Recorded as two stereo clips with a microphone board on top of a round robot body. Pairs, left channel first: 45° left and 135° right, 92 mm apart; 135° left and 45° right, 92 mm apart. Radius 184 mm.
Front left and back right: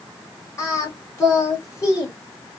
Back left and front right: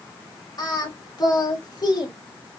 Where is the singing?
95° left, 1.7 m.